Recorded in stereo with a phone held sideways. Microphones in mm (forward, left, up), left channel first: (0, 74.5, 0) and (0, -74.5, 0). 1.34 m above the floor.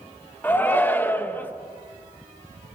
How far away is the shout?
About 1.7 m.